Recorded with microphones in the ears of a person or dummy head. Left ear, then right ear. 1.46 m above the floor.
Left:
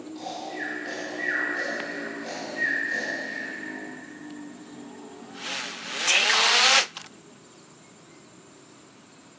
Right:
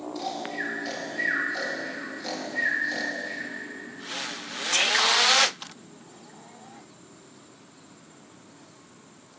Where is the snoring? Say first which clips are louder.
Right 1 dB; 30° right (ahead or behind), 2 m.